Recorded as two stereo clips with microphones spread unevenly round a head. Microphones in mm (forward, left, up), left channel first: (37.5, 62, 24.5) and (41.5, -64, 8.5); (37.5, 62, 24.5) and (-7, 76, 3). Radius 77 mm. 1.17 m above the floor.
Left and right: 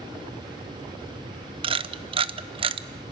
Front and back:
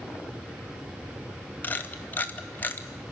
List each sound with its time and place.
1.6 s a camera shutter: 90° right, 0.9 m